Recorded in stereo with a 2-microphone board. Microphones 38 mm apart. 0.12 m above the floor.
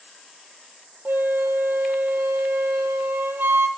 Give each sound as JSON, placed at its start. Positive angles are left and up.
{"t": 1.1, "sound": "a flute", "side_deg": -70, "distance_m": 0.6}